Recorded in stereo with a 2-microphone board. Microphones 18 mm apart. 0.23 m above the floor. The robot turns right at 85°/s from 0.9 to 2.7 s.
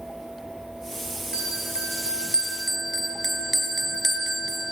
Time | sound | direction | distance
1.3 | a bell | 140° right | 3.5 m